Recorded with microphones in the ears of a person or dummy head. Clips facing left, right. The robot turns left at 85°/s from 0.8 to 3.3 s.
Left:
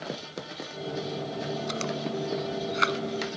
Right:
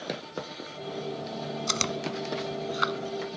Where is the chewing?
65° right (ahead or behind); by 3.4 s 75° left (ahead or behind).